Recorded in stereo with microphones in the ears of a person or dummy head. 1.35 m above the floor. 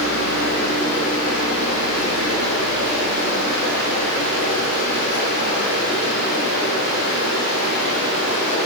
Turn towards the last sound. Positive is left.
turn(degrees=80)